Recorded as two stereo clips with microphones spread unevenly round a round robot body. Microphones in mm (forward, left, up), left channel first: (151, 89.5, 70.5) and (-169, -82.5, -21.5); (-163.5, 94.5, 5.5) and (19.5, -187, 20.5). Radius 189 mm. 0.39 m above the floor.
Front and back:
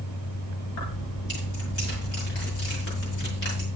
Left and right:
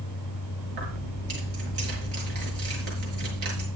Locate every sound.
0.7 s keys jangling: 20° right, 6 m